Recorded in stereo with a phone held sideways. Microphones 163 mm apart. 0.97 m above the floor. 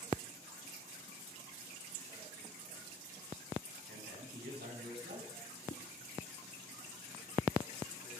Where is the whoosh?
70° left (ahead or behind), 1.9 m.